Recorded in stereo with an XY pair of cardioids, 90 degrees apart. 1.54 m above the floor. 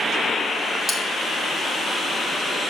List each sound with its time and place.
0.9 s cutlery clinking: 10° right, 4 m